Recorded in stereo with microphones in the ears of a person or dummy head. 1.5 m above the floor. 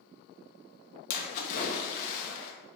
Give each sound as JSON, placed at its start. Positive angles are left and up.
{"t": 1.1, "sound": "a splash", "side_deg": 45, "distance_m": 0.8}